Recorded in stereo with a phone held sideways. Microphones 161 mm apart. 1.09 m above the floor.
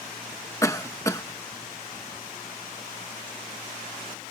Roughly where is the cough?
Centre.